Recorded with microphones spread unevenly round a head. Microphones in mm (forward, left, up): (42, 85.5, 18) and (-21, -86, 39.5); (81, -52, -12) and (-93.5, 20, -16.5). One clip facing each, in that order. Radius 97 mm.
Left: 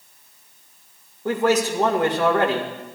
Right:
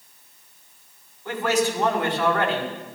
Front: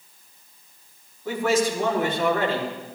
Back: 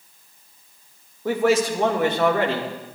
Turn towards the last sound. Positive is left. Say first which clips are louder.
# left 3 dB, back 3 dB
turn(degrees=125)